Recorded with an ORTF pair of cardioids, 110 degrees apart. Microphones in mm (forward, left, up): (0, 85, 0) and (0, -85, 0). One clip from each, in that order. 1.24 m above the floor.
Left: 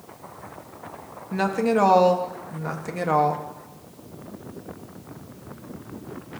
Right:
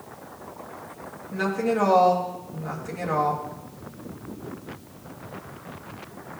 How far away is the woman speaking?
About 1.5 m.